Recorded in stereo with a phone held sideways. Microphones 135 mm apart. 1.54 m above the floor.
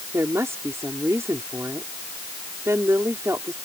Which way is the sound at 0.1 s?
20° right (ahead or behind).